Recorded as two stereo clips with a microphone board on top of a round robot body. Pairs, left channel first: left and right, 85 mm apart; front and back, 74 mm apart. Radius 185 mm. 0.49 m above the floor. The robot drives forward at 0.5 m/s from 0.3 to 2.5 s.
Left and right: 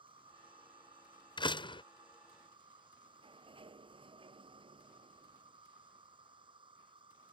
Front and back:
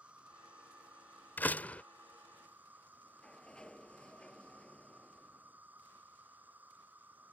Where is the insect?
105° right; by 7.3 s 110° right.